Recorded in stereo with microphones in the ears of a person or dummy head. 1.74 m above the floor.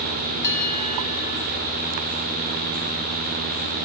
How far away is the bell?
About 5.5 m.